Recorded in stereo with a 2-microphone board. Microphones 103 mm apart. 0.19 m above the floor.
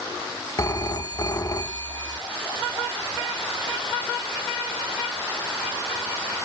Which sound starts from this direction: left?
A phone ringing, at 0.6 s.